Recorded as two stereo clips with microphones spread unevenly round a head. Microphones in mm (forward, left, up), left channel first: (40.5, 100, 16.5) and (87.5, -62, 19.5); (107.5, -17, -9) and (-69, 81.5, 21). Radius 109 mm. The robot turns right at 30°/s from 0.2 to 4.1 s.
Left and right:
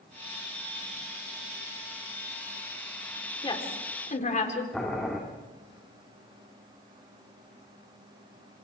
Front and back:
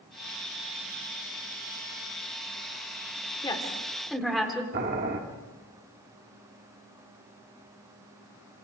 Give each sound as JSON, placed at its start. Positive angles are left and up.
{"t": 3.4, "sound": "a woman speaking", "azimuth_deg": 40, "distance_m": 4.0}
{"t": 4.7, "sound": "boiling", "azimuth_deg": -165, "distance_m": 2.0}